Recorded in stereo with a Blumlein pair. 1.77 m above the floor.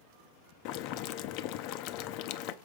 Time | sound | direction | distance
0.7 | boiling | 40° left | 0.6 m